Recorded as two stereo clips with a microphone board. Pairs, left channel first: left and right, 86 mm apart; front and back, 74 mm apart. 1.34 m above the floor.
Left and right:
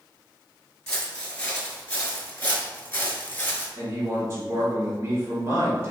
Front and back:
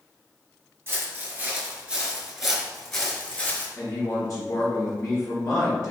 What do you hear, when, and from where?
0.9 s footsteps: 170° left, 1.5 m; by 3.7 s 45° left, 1.5 m
3.8 s a man speaking: 50° right, 1.9 m